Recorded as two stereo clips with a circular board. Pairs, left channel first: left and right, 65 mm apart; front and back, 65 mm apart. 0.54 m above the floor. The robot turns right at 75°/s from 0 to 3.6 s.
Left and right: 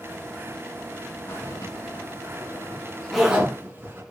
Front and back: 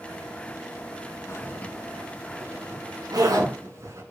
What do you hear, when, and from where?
1.3 s a zipper: 40° left, 6.5 m; by 4.0 s 145° right, 6.5 m